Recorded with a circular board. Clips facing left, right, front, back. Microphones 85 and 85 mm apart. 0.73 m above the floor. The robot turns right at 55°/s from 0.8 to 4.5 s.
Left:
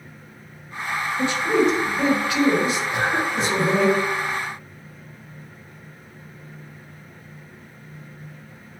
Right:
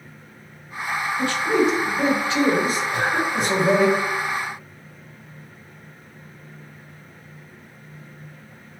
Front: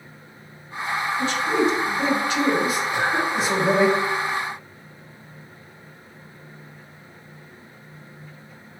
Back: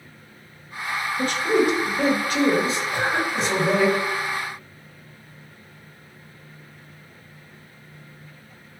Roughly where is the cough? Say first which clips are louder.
Even, front 1 dB; ahead left.